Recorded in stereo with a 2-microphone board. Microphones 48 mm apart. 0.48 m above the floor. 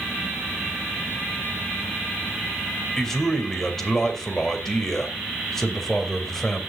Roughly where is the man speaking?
Centre.